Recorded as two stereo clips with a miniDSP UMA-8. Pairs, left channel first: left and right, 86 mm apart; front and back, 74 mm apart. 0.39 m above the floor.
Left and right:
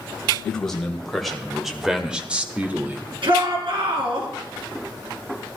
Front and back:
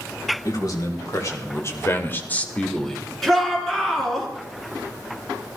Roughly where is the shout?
Right.